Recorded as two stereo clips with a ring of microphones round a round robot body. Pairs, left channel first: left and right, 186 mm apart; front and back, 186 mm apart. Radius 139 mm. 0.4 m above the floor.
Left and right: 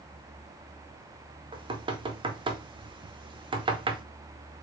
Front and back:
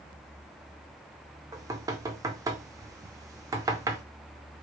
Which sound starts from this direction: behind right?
Knocking, at 1.5 s.